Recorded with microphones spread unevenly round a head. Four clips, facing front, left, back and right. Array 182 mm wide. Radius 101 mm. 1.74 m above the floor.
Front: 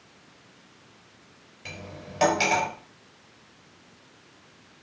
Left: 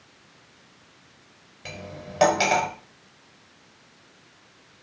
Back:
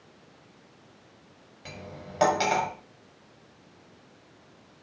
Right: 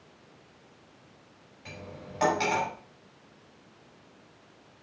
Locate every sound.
1.6 s cutlery clinking: 95° left, 5.5 m